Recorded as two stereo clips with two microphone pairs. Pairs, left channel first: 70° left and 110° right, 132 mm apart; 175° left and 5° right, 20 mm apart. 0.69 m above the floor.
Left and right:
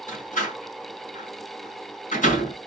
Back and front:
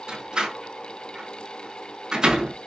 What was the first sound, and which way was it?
A door slam, 45° left.